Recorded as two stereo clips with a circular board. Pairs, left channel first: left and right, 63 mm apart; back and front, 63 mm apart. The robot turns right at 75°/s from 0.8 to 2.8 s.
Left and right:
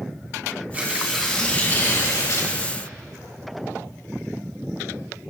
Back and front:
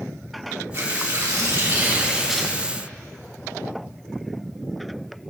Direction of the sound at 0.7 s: 30° right.